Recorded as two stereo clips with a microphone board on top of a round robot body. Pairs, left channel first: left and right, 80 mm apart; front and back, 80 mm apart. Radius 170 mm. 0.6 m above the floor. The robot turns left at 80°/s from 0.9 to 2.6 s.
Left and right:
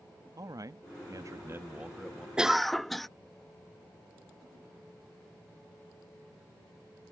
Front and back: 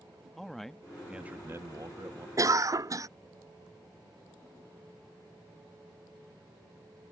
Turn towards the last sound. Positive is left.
turn(degrees=175)